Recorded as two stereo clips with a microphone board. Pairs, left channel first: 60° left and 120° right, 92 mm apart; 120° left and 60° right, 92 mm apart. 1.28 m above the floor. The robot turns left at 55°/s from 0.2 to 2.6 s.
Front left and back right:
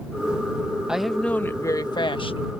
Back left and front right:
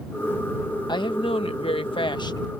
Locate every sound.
0.9 s a woman speaking: 160° left; by 2.6 s 65° left